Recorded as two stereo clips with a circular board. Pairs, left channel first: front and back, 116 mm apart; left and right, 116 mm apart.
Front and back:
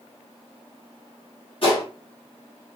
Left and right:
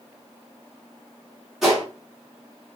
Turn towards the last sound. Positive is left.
turn(degrees=0)